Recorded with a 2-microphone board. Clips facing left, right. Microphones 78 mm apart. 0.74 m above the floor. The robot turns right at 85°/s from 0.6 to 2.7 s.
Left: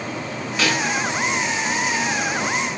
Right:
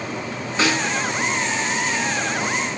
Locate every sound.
0.6 s a snare drum: 30° right (ahead or behind), 7.5 m; by 0.8 s 10° right (ahead or behind), 7.5 m